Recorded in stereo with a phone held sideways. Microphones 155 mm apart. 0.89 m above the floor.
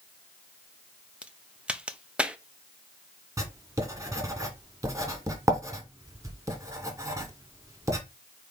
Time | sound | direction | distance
1.2 | a crack | 5° right (ahead or behind) | 0.7 m
3.4 | writing | 20° right (ahead or behind) | 1.8 m